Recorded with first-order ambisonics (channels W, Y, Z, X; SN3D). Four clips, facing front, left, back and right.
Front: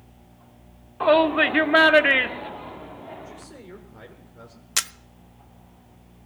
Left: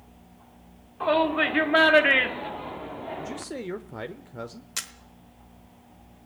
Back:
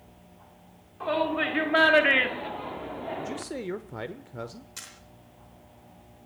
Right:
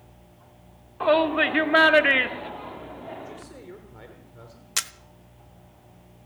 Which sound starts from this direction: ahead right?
A camera shutter, at 4.8 s.